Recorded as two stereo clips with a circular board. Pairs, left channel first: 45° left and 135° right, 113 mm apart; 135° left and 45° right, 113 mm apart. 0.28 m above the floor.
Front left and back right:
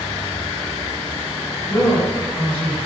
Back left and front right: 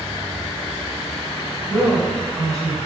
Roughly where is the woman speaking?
Ahead left.